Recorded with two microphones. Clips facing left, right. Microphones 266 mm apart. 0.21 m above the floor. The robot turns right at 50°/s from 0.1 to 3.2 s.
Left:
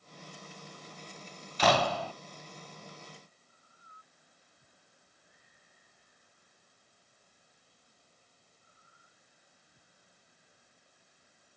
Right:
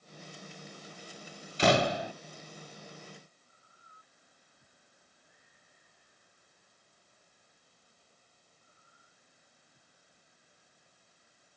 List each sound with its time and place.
1.6 s a door slam: 25° right (ahead or behind); by 2.1 s 15° right (ahead or behind)